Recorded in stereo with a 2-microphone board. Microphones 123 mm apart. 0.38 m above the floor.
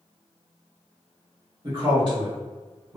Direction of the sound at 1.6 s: 45° right (ahead or behind).